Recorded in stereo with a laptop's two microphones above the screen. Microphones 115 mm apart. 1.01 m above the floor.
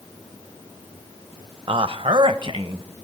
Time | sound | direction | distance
1.7 | a man speaking | 45° right (ahead or behind) | 0.5 m